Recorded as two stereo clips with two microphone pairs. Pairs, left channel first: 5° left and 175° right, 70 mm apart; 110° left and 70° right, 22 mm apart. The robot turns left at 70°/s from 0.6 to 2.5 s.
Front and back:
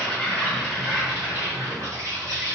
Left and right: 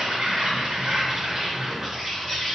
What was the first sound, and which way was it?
An insect, 70° right.